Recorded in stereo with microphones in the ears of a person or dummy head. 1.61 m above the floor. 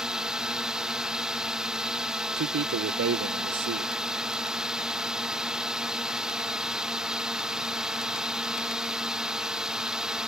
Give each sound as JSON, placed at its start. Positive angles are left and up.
{"t": 0.0, "sound": "a drone", "side_deg": -5}
{"t": 2.4, "sound": "a man speaking", "side_deg": -50}